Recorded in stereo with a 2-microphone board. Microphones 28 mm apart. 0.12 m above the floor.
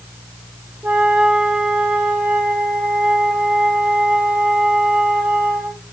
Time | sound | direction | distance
0.8 | a flute | 70° right (ahead or behind) | 1.5 m